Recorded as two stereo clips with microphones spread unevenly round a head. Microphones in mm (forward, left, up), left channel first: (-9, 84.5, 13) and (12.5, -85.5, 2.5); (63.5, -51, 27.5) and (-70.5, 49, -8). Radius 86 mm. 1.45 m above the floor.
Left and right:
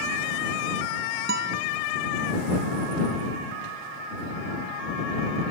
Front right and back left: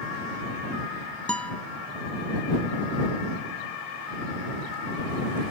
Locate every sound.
1.3 s a guitar: 110° right